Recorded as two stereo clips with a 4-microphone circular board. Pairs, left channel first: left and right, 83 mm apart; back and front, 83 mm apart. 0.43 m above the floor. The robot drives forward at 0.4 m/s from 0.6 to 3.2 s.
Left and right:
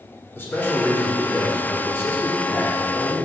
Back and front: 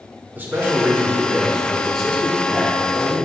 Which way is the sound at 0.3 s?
50° left.